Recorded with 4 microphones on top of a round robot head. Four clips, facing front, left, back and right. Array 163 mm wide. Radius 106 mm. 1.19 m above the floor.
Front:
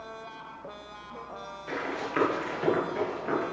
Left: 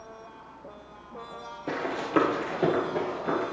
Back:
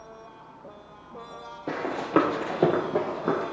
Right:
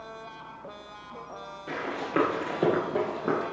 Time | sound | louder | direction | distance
1.7 | running footsteps | left 2 dB, back 6 dB | 150° left | 2.5 m